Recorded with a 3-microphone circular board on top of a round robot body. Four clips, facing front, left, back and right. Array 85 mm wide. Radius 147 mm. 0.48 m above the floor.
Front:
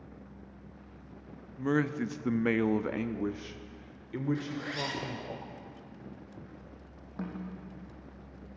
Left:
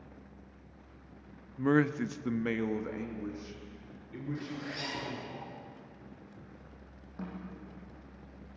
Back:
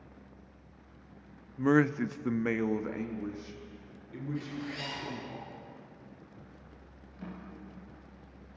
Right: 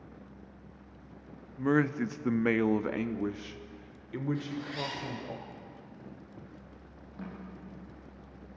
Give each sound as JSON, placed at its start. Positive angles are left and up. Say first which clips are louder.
{"t": 1.6, "sound": "a man speaking", "louder": "even, back 4 dB", "azimuth_deg": 175, "distance_m": 0.9}
{"t": 4.3, "sound": "a zipper", "louder": "right 3 dB, front 2 dB", "azimuth_deg": 10, "distance_m": 3.5}
{"t": 7.2, "sound": "a snare drum", "louder": "left 1 dB, front 6 dB", "azimuth_deg": 10, "distance_m": 7.5}